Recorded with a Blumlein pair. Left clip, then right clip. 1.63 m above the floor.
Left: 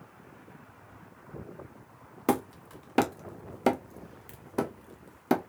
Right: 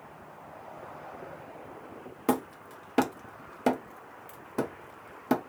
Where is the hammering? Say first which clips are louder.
Left 1 dB; 10° left, 0.8 m.